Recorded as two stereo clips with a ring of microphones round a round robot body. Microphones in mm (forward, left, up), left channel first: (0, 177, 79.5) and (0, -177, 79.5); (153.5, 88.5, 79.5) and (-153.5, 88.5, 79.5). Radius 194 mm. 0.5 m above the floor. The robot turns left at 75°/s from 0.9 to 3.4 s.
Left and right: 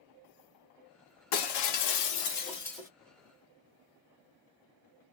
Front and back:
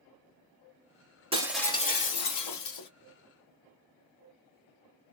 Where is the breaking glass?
110° left, 1.4 m; by 2.9 s 10° right, 1.4 m.